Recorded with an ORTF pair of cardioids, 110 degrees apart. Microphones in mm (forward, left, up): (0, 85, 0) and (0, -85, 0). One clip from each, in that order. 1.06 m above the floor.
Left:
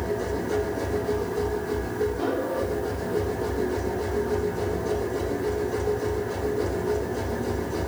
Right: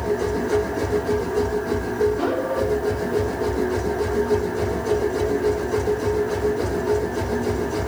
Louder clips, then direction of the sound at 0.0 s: Right 5 dB; 30° right.